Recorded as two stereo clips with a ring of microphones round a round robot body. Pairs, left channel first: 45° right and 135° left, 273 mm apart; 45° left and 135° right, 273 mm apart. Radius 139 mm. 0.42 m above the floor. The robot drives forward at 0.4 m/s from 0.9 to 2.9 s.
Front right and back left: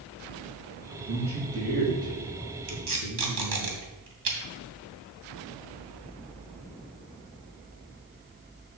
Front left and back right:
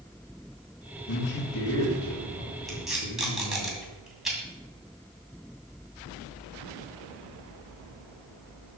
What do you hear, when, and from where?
1.1 s a man speaking: 65° left, 4.5 m; by 3.7 s 75° left, 4.5 m
2.7 s tape being pulled: 135° left, 2.5 m